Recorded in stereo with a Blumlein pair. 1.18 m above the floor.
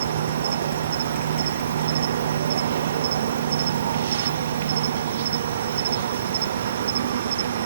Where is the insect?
60° right.